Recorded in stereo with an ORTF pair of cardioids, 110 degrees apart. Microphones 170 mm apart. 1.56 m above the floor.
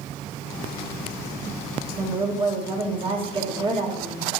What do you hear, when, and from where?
2.0 s a woman speaking: 30° right, 1.9 m